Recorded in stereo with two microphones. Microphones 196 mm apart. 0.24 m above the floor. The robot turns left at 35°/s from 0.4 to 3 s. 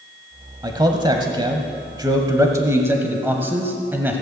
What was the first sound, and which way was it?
A man speaking, 20° right (ahead or behind).